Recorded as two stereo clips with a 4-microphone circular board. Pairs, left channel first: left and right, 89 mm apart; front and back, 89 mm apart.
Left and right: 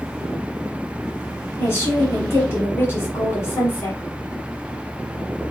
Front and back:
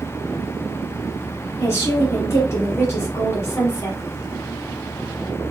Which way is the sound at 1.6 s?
45° left.